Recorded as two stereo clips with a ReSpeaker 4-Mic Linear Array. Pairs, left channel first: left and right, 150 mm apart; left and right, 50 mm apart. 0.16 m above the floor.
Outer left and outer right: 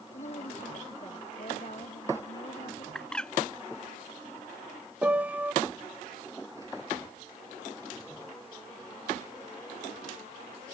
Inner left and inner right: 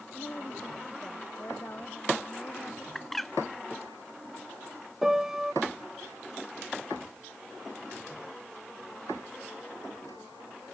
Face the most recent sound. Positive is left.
turn(degrees=-10)  # may be behind; listen again after turning